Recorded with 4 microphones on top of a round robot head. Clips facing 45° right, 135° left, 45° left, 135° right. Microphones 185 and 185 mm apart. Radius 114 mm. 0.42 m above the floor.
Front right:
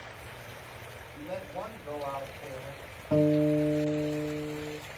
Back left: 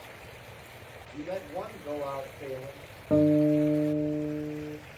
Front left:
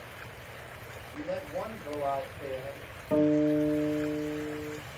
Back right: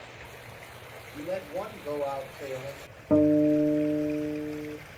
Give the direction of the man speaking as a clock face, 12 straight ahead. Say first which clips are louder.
Back left 3 dB, back right 2 dB; 7 o'clock.